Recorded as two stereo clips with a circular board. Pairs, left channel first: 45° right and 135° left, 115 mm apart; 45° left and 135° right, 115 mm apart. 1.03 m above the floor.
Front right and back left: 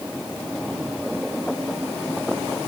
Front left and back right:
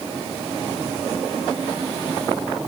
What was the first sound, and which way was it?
Only background noise.